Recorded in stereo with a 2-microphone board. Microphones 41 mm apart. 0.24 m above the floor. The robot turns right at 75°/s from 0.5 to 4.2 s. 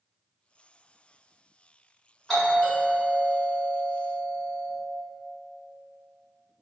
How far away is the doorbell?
About 1.7 m.